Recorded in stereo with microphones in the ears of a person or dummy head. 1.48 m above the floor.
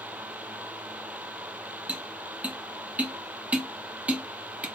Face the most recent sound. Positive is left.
turn(degrees=0)  # may be behind; listen again after turning